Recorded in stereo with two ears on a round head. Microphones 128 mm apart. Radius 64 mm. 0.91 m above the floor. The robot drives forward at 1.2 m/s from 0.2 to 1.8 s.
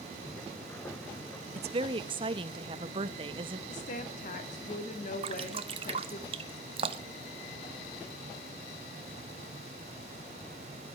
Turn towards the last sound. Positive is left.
turn(degrees=-40)  # may be behind; listen again after turning